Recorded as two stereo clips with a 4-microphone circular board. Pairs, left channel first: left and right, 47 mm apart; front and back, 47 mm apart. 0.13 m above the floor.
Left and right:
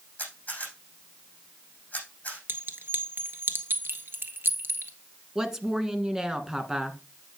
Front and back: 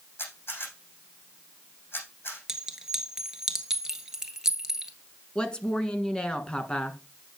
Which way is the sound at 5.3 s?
35° right.